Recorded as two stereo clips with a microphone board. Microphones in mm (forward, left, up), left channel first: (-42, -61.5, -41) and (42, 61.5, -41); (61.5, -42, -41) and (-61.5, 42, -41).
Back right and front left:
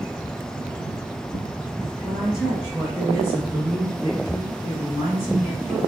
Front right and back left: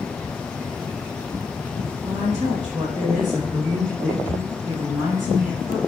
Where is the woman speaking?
150° left, 1.6 m; by 5.8 s 75° left, 2.5 m.